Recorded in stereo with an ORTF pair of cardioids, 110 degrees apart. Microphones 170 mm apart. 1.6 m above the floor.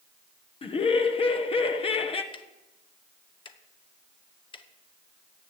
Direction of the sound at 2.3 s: 30° left.